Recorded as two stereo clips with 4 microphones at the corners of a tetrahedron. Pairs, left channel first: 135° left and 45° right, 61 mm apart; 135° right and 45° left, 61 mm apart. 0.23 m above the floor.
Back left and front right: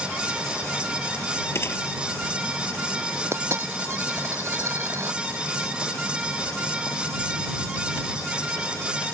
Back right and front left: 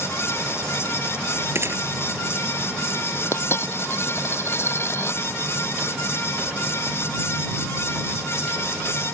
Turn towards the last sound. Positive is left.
turn(degrees=-90)